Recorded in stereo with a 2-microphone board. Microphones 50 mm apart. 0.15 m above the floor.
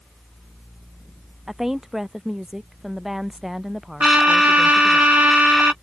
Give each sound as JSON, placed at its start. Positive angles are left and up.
{"t": 1.5, "sound": "a woman speaking", "side_deg": -5}
{"t": 4.0, "sound": "a trumpet", "side_deg": -30}